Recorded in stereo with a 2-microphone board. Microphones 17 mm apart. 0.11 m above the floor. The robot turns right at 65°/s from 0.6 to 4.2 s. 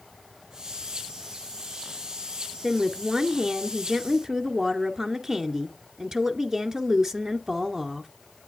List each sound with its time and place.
2.6 s a woman speaking: 175° left, 1.2 m; by 8.1 s 85° right, 1.2 m